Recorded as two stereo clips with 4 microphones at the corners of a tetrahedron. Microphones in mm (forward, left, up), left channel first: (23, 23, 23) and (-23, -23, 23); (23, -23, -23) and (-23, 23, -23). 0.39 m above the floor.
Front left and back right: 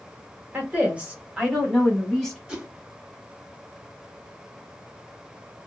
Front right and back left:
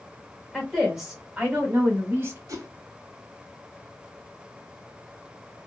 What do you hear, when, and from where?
0.5 s a woman speaking: 130° right, 1.2 m; by 2.4 s 125° left, 1.5 m
2.5 s a whoosh: 140° left, 0.8 m